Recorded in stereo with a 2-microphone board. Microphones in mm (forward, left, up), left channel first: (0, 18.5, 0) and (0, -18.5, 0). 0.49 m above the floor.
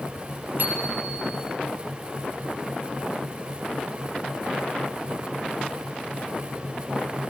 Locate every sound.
0.6 s a bicycle bell: 60° right (ahead or behind), 8.5 m